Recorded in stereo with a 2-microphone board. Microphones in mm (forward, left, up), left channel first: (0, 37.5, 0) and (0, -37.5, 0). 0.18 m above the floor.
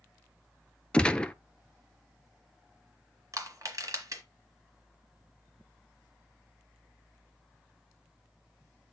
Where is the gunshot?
15° left (ahead or behind), 0.5 m.